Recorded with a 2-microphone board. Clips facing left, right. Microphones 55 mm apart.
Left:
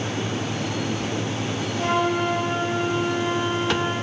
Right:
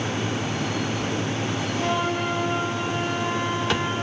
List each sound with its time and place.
1.8 s a flute: 15° left (ahead or behind), 3 m